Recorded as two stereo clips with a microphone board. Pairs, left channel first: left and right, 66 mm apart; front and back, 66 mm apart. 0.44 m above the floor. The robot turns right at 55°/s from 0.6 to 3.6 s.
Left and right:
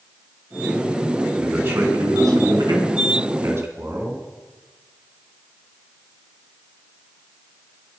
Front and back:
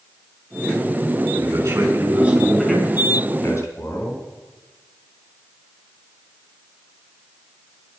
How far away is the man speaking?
About 4 m.